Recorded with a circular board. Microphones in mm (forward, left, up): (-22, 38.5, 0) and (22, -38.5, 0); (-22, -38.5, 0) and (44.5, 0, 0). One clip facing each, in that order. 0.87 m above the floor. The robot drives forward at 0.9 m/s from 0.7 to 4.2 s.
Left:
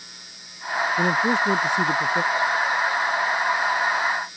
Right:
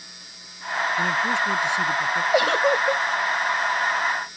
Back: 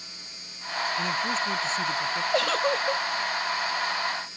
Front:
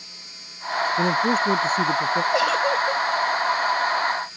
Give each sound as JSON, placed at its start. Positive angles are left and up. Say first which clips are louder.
{"t": 1.0, "sound": "a man speaking", "louder": "left 3 dB, front 9 dB", "azimuth_deg": 70}
{"t": 2.3, "sound": "a giggle", "louder": "right 3 dB, front 1 dB", "azimuth_deg": -55}